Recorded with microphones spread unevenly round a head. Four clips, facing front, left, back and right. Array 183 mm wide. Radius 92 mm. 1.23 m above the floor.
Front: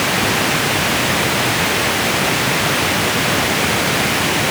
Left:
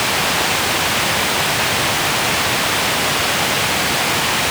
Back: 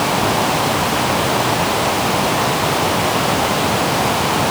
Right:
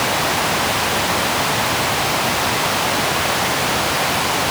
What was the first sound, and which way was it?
Only background noise.